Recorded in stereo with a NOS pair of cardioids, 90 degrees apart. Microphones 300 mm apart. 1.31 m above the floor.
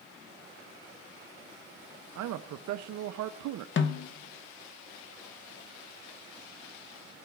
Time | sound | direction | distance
2.1 | a man speaking | 70° right | 0.6 m
3.8 | a snare drum | 45° left | 0.8 m